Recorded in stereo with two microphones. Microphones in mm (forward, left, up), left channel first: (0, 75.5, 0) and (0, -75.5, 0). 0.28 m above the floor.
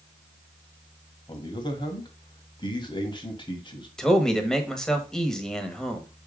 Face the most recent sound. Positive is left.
turn(degrees=5)  # may be behind; listen again after turning